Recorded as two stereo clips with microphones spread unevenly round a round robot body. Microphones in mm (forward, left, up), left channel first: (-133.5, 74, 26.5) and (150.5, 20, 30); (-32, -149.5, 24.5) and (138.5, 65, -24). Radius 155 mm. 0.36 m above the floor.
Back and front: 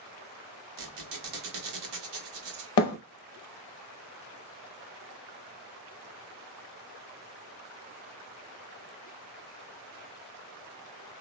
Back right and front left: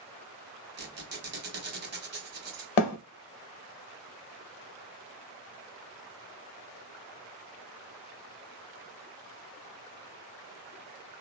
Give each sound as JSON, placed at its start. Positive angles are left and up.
{"t": 0.8, "sound": "a squeak", "azimuth_deg": 5, "distance_m": 1.1}
{"t": 2.8, "sound": "a thud", "azimuth_deg": -150, "distance_m": 0.5}